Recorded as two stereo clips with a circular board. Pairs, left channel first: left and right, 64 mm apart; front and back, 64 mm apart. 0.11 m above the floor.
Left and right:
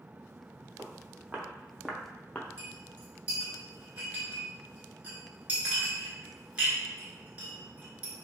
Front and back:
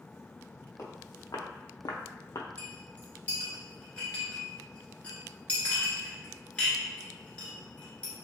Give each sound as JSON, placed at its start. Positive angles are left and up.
{"t": 0.8, "sound": "footsteps", "azimuth_deg": -40, "distance_m": 1.0}
{"t": 2.6, "sound": "a clink", "azimuth_deg": -50, "distance_m": 0.9}